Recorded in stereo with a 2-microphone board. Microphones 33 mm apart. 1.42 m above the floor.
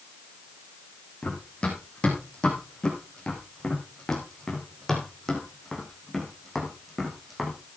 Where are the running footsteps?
30° left (ahead or behind), 5.5 m; by 7.6 s 5° right (ahead or behind), 5 m.